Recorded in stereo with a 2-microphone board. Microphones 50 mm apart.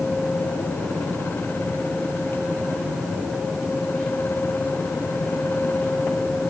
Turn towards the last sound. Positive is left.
No sound to turn to.